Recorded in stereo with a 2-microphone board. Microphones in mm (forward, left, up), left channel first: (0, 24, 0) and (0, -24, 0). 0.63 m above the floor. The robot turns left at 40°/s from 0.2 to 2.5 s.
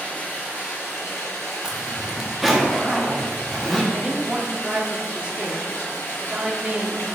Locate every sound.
0.0 s running water: 145° left, 2.5 m; by 7.2 s 55° left, 2.5 m
1.6 s a zipper: 15° right (ahead or behind), 1.2 m; by 3.8 s centre (ahead or behind), 1.2 m
3.9 s a woman speaking: 25° right (ahead or behind), 1.0 m